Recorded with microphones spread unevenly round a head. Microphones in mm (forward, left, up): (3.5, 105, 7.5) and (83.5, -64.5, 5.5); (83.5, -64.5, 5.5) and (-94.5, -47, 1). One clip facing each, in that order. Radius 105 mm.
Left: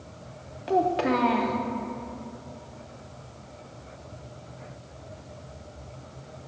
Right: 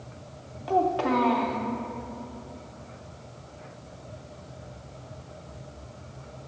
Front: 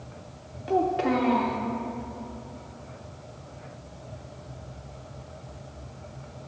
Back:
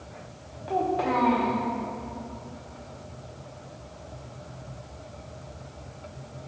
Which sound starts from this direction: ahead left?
A child speaking, at 0.7 s.